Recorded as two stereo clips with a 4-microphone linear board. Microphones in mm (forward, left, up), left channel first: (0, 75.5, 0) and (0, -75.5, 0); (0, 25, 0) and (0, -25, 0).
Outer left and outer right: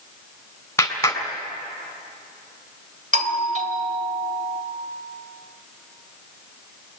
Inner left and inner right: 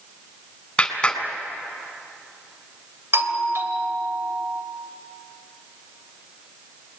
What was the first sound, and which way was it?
A clap, 20° left (ahead or behind).